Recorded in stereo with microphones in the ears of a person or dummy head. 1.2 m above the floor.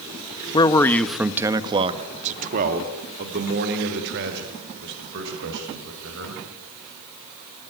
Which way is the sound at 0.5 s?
30° left (ahead or behind).